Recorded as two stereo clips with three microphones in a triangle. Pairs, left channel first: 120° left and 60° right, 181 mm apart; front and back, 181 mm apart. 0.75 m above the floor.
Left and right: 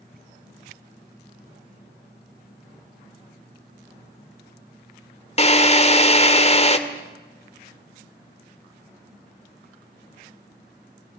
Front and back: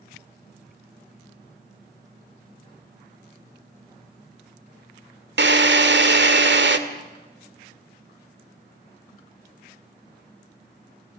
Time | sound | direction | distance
5.4 | a drill | 175° left | 1.8 m